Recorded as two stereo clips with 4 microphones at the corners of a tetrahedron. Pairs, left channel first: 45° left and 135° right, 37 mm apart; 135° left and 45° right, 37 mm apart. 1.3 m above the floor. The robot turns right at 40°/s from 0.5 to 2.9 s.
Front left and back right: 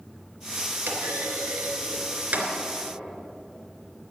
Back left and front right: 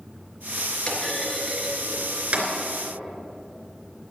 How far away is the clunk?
About 3.5 m.